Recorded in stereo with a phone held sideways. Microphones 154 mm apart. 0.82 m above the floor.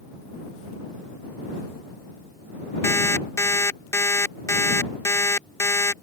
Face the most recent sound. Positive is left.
turn(degrees=20)  # may be behind; listen again after turning